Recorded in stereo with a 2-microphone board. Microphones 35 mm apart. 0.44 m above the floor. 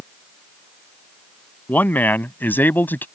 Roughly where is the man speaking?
Left.